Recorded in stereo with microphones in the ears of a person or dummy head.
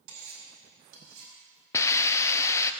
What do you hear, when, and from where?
0.1 s cutlery clinking: 80° right, 5.5 m
1.7 s a hiss: 15° left (ahead or behind), 0.7 m